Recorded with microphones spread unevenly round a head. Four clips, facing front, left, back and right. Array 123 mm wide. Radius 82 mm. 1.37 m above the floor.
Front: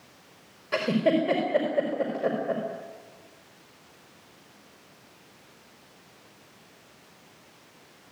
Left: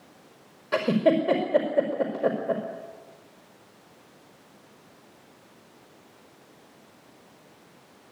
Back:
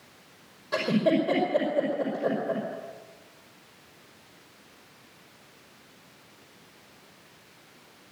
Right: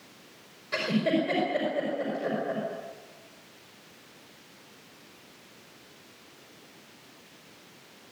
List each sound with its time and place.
0.7 s a giggle: 80° left, 5 m